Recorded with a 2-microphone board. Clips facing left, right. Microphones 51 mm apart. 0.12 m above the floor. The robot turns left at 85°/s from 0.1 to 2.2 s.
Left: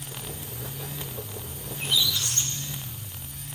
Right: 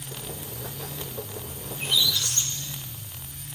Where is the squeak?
165° right, 2.5 m; by 3.5 s 150° left, 2.5 m.